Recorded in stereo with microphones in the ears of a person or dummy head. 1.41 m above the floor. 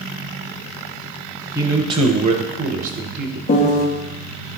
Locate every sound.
1.6 s a man speaking: 15° right (ahead or behind), 1.1 m; by 3.4 s 55° right (ahead or behind), 1.7 m
3.5 s a piano: 35° left (ahead or behind), 1.1 m